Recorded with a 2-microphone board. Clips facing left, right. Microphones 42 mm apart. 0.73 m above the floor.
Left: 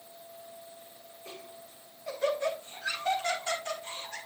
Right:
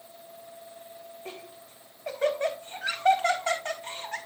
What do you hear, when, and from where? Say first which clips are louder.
1.2 s laughter: even; 55° right (ahead or behind), 4 m